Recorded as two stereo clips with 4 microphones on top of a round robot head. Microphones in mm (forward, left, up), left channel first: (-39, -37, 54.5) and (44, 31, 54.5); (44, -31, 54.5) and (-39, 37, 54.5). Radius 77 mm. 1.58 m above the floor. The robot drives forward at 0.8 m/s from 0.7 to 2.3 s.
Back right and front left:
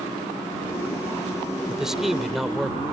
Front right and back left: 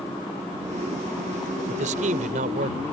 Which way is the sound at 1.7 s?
125° left.